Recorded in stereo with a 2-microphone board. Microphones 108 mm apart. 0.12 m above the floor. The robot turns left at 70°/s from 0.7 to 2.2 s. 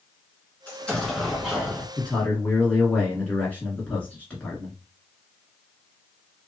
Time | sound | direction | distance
0.7 | an explosion | 10° left (ahead or behind) | 1.5 m
2.0 | a man speaking | 10° left (ahead or behind) | 1.2 m